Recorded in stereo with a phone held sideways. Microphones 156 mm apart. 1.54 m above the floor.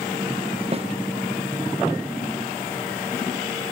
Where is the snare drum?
40° right (ahead or behind), 0.7 m.